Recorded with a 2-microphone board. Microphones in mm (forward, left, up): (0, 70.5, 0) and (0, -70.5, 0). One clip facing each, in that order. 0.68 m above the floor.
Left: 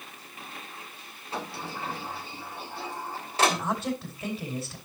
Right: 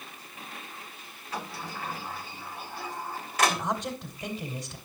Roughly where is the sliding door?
Left.